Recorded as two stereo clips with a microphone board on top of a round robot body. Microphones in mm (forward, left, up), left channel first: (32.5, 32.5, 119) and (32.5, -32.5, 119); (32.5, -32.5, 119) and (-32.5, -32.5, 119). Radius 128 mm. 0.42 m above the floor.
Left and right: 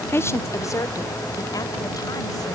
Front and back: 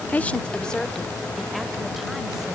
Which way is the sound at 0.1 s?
55° left.